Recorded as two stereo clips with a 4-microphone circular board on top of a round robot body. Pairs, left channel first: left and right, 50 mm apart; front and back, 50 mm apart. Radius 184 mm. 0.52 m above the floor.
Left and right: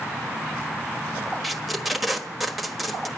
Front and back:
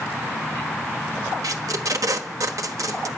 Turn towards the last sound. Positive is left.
turn(degrees=180)